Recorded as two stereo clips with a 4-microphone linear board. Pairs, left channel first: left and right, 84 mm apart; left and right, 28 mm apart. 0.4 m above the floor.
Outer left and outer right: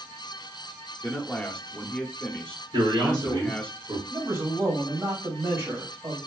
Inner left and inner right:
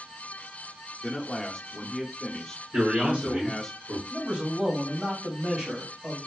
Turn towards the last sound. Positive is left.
turn(degrees=-35)  # may be behind; listen again after turning